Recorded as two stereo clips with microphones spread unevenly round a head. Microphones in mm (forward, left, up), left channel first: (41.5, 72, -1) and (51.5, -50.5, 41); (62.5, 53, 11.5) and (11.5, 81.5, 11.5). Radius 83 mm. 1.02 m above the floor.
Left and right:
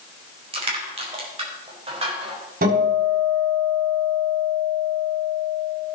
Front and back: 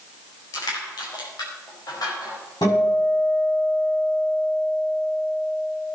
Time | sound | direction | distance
0.5 | crushing | 45° right | 4 m
2.6 | a guitar | 85° right | 6 m